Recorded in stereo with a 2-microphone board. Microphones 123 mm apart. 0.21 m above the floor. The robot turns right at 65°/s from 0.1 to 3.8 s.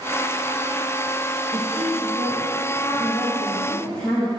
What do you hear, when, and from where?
1.5 s a woman speaking: 135° right, 4.5 m; by 4.3 s 15° left, 4.5 m